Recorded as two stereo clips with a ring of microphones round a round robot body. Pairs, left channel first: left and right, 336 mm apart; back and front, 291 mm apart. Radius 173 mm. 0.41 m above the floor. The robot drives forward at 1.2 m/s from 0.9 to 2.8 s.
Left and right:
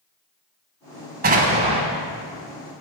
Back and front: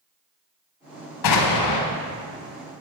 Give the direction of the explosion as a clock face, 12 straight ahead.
5 o'clock.